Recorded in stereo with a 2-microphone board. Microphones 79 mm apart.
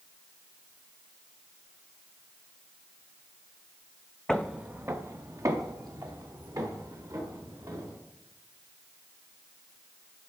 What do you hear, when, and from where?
4.3 s footsteps: 10° left (ahead or behind), 0.5 m; by 8.0 s 55° right (ahead or behind), 3.5 m